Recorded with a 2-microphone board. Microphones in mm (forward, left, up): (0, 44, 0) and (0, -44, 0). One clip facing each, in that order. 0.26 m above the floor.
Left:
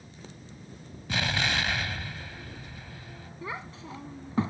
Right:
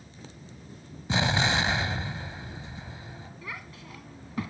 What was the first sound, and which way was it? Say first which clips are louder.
An explosion: right 4 dB; 25° right (ahead or behind).